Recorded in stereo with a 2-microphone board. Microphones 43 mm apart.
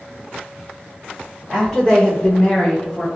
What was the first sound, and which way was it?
A woman speaking, 15° left (ahead or behind).